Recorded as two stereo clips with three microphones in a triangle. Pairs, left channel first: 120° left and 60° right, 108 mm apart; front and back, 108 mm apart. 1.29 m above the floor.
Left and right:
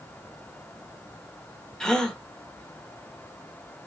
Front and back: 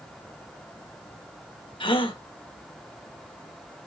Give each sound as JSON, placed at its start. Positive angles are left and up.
{"t": 1.8, "sound": "a gasp", "azimuth_deg": 35, "distance_m": 1.0}